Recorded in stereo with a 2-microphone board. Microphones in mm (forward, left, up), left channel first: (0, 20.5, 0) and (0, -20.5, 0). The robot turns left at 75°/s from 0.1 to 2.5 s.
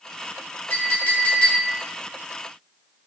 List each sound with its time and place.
0.7 s a clink: 105° left, 2.5 m; by 1.7 s 30° left, 2.5 m